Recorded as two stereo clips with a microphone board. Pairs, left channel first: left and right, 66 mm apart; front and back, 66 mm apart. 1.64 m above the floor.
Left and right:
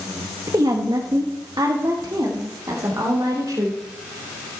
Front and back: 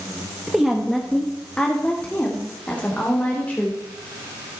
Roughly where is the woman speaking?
Right.